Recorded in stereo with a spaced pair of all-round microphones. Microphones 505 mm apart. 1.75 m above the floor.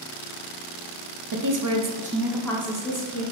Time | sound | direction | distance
1.3 | a woman speaking | 45° right (ahead or behind) | 0.6 m